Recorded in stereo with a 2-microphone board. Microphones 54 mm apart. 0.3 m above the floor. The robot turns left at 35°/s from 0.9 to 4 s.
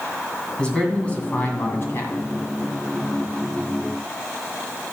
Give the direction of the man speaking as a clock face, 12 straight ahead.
7 o'clock.